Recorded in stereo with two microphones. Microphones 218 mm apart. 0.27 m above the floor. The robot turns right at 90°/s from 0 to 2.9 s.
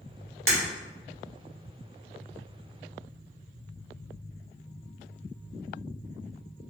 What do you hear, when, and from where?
0.5 s breaking glass: 75° right (ahead or behind), 1.9 m; by 0.6 s 80° right, 1.9 m